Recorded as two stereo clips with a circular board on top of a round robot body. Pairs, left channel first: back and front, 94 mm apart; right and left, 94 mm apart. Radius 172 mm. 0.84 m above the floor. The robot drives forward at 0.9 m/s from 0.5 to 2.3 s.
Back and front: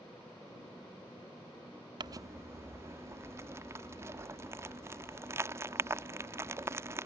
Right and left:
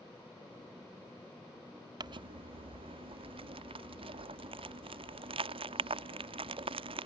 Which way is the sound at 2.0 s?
45° left.